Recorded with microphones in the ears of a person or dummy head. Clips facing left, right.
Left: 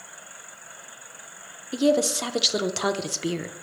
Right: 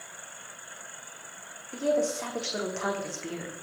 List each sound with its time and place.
1.7 s a woman speaking: 50° left (ahead or behind), 0.6 m